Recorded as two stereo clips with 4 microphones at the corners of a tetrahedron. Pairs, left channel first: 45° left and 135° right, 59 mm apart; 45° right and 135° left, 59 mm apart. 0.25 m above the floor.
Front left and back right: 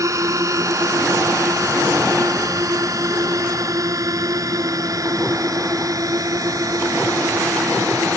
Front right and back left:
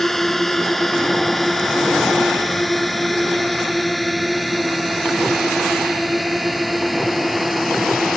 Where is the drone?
130° right; by 8.2 s 135° right.